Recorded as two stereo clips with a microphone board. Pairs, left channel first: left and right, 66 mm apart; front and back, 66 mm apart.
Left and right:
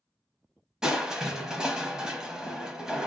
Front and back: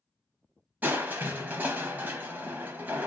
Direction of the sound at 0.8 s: 155° right.